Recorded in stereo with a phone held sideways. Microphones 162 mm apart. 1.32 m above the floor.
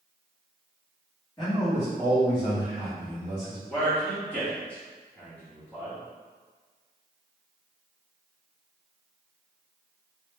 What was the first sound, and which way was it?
A man speaking, 25° left (ahead or behind).